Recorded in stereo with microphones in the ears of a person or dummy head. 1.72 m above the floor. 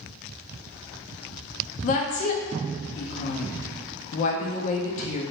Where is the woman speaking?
45° left (ahead or behind), 0.6 m.